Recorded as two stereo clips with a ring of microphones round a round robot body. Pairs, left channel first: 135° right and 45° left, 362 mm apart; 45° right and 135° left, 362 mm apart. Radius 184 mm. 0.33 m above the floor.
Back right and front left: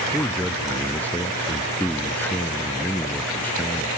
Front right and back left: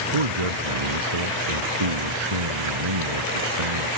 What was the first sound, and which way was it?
A man speaking, 140° left.